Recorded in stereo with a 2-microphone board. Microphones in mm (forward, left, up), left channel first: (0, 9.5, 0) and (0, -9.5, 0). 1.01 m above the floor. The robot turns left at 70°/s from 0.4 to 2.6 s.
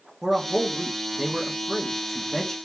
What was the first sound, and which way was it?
A man speaking, 70° right.